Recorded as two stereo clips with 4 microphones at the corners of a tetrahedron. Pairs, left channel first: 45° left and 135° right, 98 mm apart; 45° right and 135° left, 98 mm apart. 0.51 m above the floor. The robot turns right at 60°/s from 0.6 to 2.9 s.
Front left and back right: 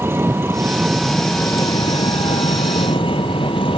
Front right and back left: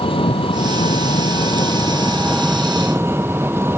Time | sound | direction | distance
0.0 | an engine running | 70° right | ?